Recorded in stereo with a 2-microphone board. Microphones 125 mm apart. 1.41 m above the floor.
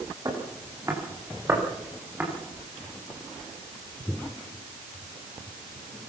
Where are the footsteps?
30° right (ahead or behind), 7.5 m; by 2.3 s 15° right (ahead or behind), 9 m.